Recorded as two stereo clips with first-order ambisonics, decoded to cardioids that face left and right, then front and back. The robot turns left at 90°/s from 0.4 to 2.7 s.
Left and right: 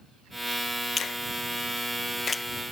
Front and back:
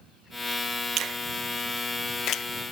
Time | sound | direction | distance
1.0 | a finger snap | 145° left | ?